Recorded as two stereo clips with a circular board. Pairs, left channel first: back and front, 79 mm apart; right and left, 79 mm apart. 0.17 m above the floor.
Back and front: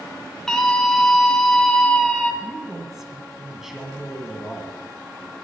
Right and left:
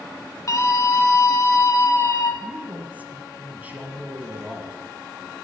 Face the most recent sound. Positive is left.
turn(degrees=75)